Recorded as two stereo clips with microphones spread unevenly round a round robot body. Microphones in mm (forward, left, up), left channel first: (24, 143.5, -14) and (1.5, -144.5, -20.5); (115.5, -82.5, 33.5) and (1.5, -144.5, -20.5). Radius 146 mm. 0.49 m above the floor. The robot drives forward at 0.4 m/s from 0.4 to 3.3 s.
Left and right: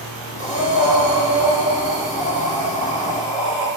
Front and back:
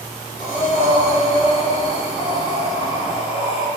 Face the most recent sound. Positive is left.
turn(degrees=-170)